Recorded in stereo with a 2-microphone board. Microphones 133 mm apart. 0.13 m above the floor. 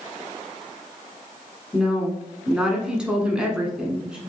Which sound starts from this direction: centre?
A woman speaking, at 1.7 s.